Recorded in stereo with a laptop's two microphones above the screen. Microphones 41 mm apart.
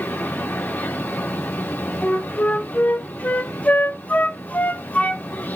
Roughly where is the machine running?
Left.